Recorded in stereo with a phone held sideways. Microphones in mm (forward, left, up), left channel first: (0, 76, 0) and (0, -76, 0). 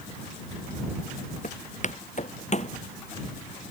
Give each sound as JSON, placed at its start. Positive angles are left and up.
{"t": 1.4, "sound": "footsteps", "side_deg": 55}